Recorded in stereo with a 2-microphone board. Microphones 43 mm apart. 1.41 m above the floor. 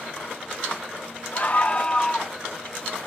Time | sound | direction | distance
1.3 | a scream | 40° left (ahead or behind) | ?